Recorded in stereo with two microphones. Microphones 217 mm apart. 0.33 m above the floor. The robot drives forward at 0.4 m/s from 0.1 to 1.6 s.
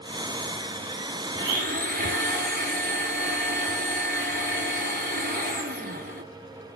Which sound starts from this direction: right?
A blender, at 1.3 s.